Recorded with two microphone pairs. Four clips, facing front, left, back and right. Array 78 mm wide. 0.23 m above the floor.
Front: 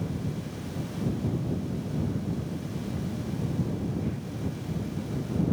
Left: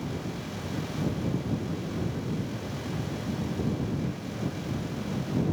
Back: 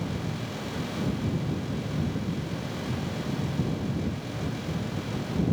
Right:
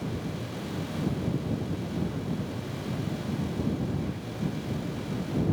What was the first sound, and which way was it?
Only background noise.